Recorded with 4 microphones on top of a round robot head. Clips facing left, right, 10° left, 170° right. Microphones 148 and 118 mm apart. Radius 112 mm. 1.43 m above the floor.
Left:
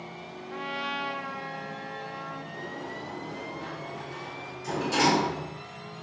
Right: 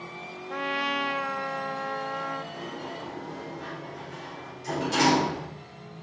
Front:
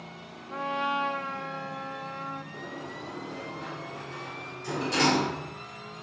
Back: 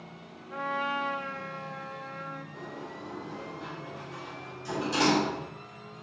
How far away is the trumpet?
About 0.7 m.